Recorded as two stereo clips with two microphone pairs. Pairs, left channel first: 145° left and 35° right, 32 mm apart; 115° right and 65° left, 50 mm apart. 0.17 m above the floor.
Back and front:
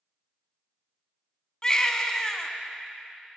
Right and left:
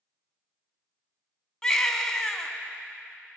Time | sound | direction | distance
1.6 | a baby crying | straight behind | 1.0 m